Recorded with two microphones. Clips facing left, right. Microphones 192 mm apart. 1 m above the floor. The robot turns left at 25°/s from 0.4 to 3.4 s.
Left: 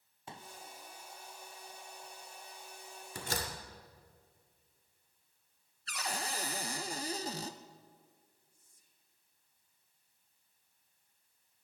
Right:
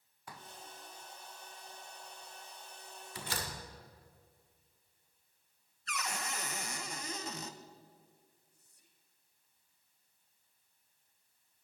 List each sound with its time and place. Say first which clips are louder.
0.3 s a pop: left 2 dB; 25° left (ahead or behind), 0.6 m; by 0.5 s 30° left (ahead or behind), 0.6 m
3.1 s a door slam: left 3 dB; 50° left (ahead or behind), 2 m; by 3.5 s 45° left (ahead or behind), 2 m
5.9 s a cupboard door: left 1 dB; 35° left (ahead or behind), 0.8 m
8.5 s whispering: right 2 dB; 75° right (ahead or behind), 1.9 m